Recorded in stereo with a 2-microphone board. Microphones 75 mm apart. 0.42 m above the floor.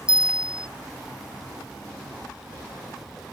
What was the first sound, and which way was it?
A bell, 10° right (ahead or behind).